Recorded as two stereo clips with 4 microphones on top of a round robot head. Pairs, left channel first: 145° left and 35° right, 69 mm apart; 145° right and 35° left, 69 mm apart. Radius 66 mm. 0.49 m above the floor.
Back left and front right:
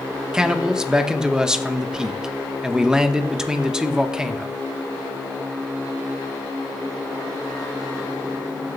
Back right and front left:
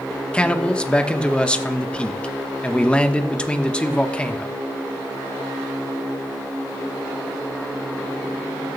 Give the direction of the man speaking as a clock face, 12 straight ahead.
3 o'clock.